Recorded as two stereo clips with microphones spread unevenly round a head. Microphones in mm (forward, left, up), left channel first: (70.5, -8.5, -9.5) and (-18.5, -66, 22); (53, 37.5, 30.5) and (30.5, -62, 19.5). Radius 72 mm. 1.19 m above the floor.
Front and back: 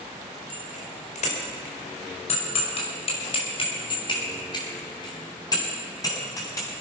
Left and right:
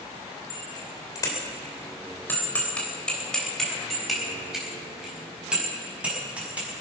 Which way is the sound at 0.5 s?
35° left.